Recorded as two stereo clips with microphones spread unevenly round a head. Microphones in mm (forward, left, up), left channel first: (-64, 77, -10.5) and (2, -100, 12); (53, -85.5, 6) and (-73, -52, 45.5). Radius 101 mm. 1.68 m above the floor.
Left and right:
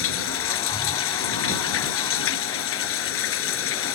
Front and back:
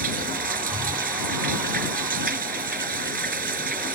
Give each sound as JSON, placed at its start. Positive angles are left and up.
{"t": 0.0, "sound": "running water", "azimuth_deg": 120}